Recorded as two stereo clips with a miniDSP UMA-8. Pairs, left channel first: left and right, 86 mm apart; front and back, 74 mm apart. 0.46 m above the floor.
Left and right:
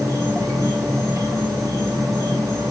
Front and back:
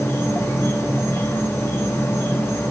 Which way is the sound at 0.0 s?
50° right.